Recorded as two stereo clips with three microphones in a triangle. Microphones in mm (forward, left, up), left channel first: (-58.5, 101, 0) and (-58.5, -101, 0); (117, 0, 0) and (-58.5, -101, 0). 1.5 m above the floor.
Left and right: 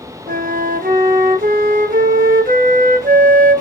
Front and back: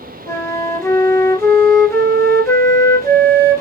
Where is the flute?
45° right, 0.9 m.